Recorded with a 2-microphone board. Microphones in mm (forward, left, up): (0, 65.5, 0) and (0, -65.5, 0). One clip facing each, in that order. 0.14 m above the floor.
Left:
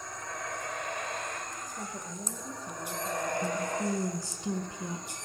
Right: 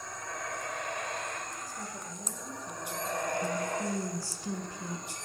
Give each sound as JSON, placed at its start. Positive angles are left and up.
{"t": 1.7, "sound": "a woman speaking", "side_deg": 20, "distance_m": 2.0}
{"t": 3.4, "sound": "a woman speaking", "side_deg": 20, "distance_m": 1.7}